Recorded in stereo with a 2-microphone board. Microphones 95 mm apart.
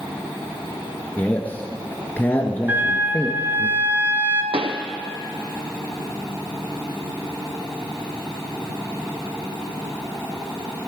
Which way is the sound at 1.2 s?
20° left (ahead or behind).